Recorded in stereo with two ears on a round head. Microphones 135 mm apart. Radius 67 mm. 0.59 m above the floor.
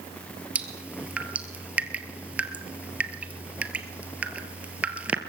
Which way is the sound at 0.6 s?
10° right (ahead or behind).